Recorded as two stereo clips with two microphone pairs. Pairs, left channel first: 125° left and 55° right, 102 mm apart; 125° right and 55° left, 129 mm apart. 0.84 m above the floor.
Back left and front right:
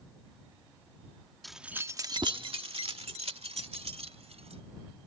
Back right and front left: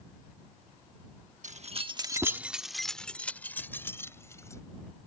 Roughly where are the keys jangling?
Ahead left.